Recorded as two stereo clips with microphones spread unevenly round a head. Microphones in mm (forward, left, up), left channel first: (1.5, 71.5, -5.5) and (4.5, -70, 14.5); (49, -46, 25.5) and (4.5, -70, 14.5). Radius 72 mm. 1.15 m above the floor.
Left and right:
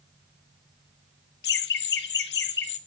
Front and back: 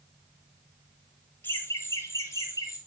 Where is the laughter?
100° left, 1.4 m; by 2.8 s 90° left, 2 m.